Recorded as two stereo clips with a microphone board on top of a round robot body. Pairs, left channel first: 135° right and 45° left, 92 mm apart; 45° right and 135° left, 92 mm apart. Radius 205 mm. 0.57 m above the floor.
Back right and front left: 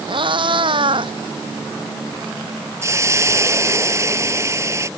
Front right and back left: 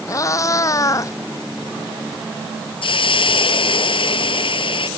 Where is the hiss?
15° right.